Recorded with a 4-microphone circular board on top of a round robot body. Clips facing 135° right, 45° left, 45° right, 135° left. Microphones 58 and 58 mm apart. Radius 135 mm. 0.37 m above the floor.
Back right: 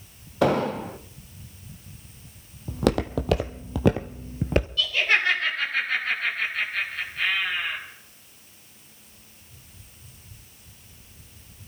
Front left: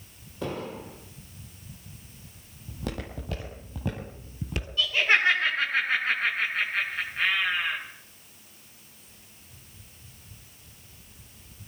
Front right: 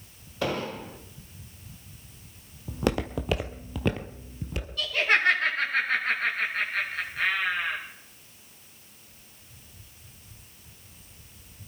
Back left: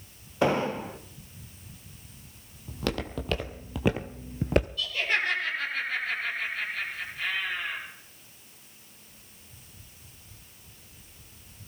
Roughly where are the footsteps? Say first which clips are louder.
Back right 13 dB, front right 4 dB; behind right.